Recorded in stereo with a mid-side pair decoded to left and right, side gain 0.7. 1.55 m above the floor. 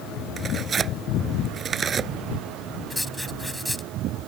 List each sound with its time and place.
0.4 s tearing paper: 30° right
2.9 s writing: 5° left